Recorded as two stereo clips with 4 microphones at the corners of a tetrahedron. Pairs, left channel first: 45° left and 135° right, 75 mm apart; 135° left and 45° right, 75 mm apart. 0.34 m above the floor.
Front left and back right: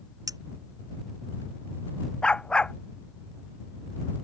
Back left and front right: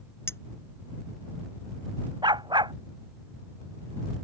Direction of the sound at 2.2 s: 35° right.